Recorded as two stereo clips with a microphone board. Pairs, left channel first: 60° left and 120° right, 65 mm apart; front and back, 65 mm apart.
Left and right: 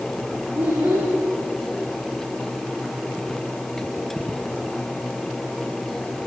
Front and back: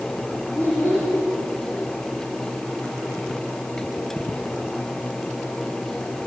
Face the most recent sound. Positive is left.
turn(degrees=-55)